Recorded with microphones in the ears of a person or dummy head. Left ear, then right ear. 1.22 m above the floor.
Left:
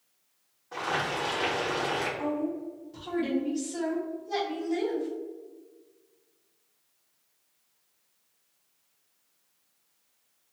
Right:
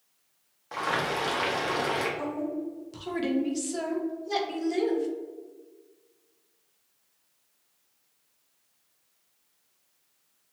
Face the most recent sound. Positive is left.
turn(degrees=-50)  # may be behind; listen again after turning